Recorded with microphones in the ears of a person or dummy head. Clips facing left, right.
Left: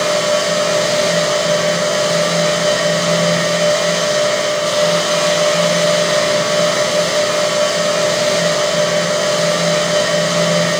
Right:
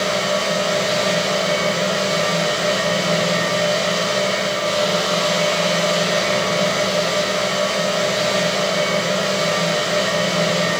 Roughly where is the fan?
Left.